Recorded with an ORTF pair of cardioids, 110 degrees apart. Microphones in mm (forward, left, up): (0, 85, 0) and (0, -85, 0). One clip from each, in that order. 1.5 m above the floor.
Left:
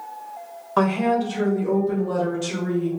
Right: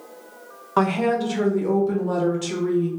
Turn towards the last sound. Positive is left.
turn(degrees=-40)